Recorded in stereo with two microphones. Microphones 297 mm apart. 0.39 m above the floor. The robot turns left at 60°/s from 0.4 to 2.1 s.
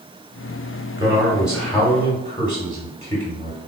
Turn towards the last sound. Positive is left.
turn(degrees=15)  # may be behind; listen again after turning